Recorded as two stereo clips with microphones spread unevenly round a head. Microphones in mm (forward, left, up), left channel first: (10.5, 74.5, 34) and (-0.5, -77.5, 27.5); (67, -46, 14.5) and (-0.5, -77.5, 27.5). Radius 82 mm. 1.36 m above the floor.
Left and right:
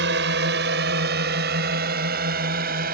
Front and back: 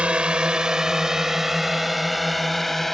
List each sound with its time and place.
0.0 s a drone: 80° right; by 2.9 s 65° right